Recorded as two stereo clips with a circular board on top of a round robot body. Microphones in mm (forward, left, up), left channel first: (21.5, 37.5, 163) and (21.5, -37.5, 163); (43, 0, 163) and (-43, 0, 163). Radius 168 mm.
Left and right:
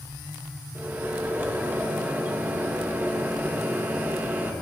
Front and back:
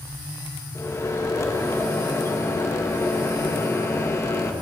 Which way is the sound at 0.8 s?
35° right.